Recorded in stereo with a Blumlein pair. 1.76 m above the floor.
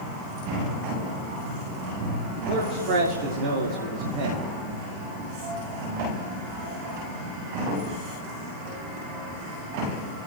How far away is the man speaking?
About 2 m.